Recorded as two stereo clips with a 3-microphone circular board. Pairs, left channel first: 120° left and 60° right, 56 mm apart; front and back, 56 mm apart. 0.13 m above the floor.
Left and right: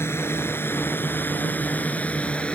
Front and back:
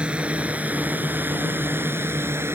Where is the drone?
115° left; by 2.5 s 175° right.